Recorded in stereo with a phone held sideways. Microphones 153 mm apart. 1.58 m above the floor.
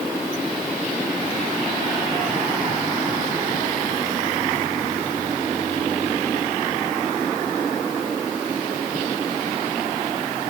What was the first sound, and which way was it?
Only background noise.